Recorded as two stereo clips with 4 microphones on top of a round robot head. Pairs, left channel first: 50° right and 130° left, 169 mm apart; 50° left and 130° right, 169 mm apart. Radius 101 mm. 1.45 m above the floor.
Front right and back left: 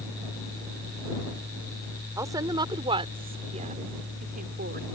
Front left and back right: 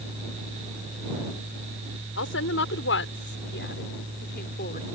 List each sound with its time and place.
2.2 s a woman speaking: 55° left; by 4.9 s 95° left